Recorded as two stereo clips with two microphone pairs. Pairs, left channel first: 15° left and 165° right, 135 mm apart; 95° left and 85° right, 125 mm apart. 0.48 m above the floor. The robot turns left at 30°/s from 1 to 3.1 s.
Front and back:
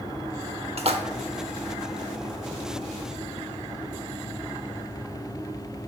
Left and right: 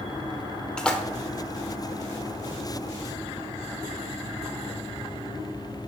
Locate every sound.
0.8 s a splash: straight behind, 0.8 m; by 1.0 s 175° left, 0.8 m